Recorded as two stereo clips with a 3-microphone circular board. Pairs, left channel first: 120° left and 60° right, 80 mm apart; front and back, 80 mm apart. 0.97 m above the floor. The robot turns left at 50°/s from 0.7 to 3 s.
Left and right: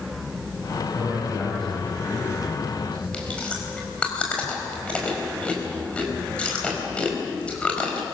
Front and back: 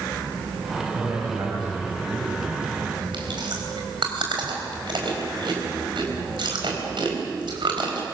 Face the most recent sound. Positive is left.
turn(degrees=-165)